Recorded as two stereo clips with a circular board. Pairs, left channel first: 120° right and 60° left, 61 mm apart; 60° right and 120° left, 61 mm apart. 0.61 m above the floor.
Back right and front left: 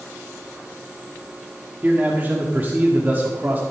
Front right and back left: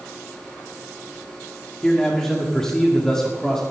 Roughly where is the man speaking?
Ahead.